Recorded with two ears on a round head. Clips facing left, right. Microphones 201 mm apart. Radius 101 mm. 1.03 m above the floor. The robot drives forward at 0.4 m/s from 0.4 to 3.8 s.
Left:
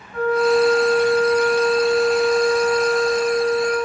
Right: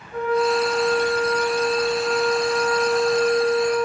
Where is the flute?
75° right (ahead or behind), 4.5 m; by 3.9 s 60° right (ahead or behind), 5 m.